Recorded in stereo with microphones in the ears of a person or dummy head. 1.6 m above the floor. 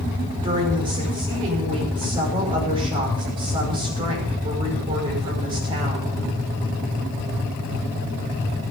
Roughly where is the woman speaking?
Right.